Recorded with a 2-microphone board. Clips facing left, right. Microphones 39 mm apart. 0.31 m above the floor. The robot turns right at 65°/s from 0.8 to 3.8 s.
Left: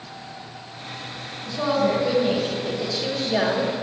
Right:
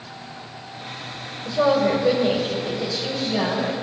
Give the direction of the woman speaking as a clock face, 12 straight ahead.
2 o'clock.